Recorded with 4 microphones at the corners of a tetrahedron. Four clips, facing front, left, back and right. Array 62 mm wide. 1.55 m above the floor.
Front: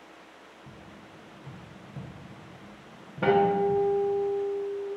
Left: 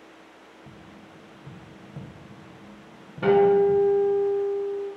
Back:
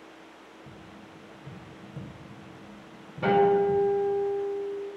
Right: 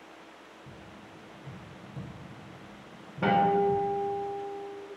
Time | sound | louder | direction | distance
0.7 | tapping | left 2 dB, even | 90° left | 0.7 m
3.2 | a guitar | left 6 dB, back 1 dB | 35° right | 1.2 m